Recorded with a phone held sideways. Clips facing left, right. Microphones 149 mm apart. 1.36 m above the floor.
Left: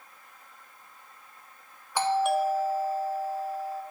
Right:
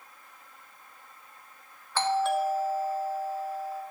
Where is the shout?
No shout in this recording.